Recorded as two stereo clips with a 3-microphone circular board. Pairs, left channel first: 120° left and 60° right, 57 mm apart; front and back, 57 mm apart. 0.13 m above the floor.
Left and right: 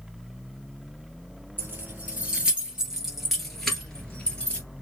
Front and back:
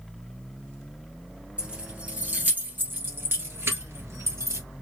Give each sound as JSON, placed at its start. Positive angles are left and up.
{"t": 1.6, "sound": "keys jangling", "azimuth_deg": -110, "distance_m": 1.9}